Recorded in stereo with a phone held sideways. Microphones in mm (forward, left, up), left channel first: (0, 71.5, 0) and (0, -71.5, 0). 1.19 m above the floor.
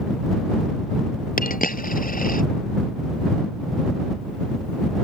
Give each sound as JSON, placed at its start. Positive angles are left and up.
{"t": 1.4, "sound": "a dropped coin", "side_deg": 75}